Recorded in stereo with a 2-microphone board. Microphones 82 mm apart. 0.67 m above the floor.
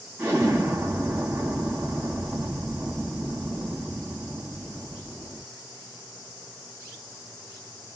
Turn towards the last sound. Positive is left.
turn(degrees=-25)  # may be behind; listen again after turning